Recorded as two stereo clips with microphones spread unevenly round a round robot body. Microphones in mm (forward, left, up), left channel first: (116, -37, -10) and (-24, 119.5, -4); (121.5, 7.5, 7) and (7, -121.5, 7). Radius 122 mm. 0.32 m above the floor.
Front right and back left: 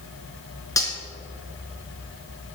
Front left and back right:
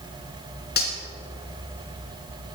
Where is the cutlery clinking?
25° left, 2 m.